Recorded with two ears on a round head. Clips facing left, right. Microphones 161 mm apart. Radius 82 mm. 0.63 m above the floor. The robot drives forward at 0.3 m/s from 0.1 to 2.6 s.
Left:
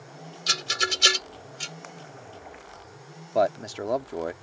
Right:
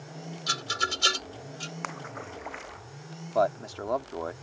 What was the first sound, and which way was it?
A rattle, 25° left (ahead or behind).